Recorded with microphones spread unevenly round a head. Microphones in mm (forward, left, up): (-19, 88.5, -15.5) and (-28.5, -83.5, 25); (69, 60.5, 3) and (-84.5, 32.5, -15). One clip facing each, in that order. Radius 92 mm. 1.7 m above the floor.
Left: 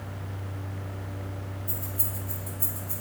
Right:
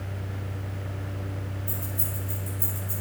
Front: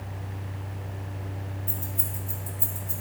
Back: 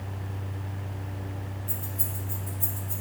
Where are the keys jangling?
25° right, 2.5 m.